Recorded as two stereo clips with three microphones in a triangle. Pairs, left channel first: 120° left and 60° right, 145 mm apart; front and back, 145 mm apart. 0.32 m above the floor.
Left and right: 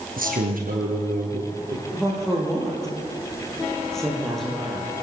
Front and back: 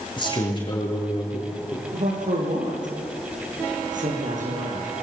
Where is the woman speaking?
155° right, 7 m.